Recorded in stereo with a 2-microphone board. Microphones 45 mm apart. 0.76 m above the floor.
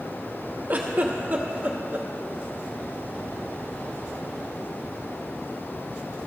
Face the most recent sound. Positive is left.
turn(degrees=-40)  # may be behind; listen again after turning